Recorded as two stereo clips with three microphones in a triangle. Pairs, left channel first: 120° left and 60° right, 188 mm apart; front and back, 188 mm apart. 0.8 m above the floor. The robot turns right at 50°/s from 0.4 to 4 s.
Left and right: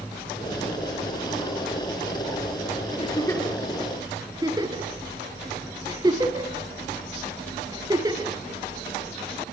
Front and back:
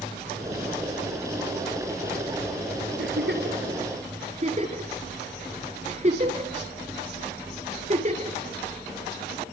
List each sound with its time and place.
3.0 s a giggle: straight behind, 3.5 m; by 9.4 s 130° right, 3.5 m